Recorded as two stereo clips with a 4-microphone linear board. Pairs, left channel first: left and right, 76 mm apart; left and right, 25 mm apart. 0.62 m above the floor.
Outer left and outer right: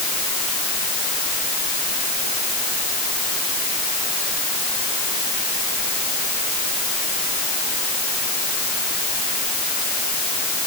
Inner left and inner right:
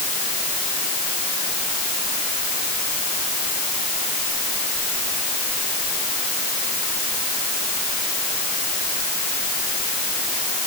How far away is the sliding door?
No sliding door in this recording.